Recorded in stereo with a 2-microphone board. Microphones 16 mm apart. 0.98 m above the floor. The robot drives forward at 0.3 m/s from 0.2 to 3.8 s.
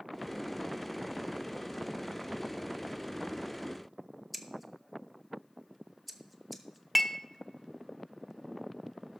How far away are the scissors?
About 0.8 m.